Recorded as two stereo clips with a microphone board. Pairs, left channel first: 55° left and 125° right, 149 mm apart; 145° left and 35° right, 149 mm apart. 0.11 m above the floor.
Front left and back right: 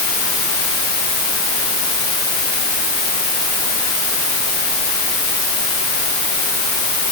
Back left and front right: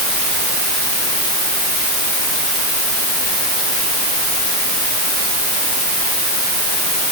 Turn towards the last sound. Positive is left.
No sound to turn to.